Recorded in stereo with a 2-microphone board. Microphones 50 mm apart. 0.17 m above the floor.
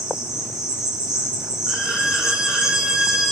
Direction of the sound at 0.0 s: 15° right (ahead or behind).